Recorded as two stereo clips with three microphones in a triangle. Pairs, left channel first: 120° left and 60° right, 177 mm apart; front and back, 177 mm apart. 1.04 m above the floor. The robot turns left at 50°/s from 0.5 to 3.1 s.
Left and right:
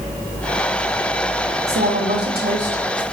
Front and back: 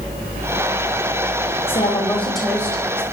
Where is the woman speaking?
55° right, 4.5 m; by 3.0 s 125° right, 4.5 m.